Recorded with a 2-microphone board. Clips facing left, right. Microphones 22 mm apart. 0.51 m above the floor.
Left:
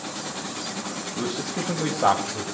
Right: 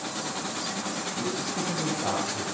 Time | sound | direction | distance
1.2 | a man speaking | 70° left (ahead or behind) | 3 m